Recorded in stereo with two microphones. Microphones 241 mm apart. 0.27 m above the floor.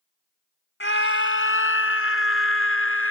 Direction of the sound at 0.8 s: 60° left (ahead or behind).